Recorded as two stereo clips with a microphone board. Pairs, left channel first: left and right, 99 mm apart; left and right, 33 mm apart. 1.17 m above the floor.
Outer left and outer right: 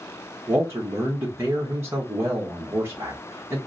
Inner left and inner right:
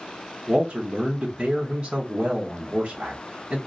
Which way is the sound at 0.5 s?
25° right (ahead or behind).